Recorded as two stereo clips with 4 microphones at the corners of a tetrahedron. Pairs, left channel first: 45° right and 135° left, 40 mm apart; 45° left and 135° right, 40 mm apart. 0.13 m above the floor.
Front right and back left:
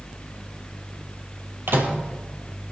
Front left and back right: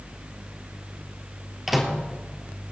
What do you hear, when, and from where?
1.7 s a microwave: 140° left, 2.5 m